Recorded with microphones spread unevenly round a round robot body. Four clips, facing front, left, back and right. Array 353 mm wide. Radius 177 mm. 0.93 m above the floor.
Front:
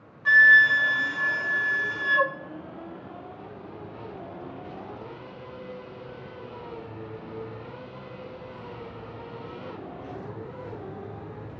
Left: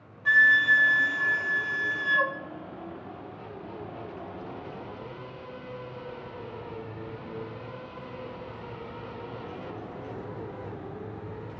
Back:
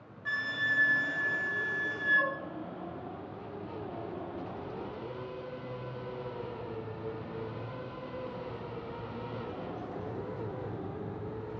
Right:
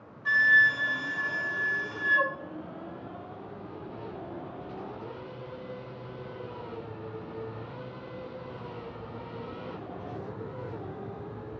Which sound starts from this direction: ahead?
A flute, at 0.2 s.